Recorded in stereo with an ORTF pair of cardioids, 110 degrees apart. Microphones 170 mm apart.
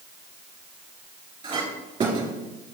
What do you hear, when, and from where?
1.4 s a clink: 30° right, 2 m